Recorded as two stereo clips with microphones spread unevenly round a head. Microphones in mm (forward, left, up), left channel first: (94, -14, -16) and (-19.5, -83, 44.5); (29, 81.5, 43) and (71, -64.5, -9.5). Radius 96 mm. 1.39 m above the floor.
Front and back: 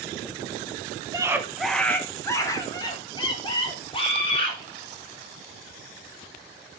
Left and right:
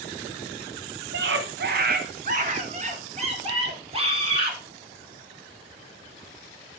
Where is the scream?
85° right, 1.0 m; by 4.6 s 20° right, 4 m.